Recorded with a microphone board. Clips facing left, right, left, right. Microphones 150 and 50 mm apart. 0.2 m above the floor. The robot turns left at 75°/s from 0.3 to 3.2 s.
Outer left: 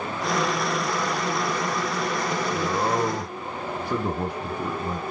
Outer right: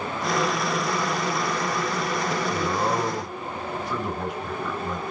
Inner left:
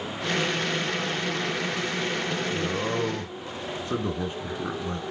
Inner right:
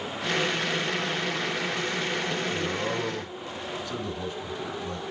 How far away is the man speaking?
About 2.5 m.